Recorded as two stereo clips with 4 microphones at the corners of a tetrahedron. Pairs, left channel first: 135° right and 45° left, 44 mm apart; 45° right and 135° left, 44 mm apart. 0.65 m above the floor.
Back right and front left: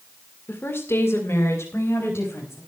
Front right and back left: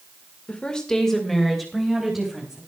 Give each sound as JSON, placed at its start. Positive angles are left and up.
{"t": 0.5, "sound": "a woman speaking", "azimuth_deg": -110, "distance_m": 2.0}